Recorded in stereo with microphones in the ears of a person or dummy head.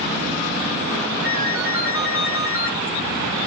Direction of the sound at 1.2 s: 15° right (ahead or behind).